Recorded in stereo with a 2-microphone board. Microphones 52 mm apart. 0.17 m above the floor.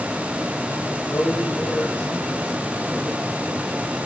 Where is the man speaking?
40° left (ahead or behind), 7 m; by 3.3 s 15° left (ahead or behind), 5 m.